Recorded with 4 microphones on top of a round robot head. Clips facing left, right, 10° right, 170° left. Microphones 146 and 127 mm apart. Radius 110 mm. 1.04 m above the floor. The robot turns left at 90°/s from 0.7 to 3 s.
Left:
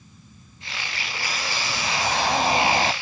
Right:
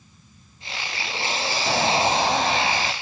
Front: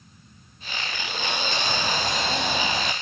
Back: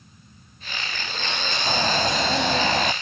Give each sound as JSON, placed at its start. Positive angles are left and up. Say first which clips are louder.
{"t": 1.7, "sound": "a bird", "louder": "right 7 dB, back 8 dB", "azimuth_deg": -115}